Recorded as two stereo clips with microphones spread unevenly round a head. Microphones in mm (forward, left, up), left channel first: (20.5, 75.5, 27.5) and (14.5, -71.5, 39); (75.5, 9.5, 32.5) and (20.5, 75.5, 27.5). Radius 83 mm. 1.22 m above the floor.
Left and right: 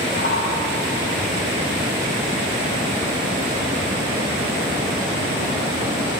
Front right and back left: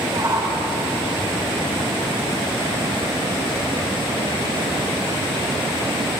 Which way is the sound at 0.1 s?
75° left.